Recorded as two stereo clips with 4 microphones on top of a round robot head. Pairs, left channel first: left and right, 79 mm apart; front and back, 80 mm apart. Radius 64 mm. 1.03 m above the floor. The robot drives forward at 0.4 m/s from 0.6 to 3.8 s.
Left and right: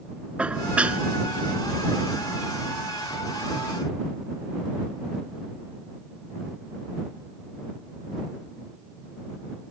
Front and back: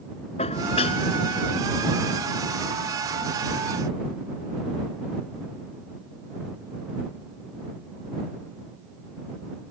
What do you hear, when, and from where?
0.4 s dishes clattering: 15° right